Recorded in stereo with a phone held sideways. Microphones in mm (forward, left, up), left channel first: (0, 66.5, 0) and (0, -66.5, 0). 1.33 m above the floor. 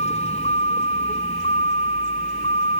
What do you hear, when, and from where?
0.0 s a vehicle: 50° left (ahead or behind)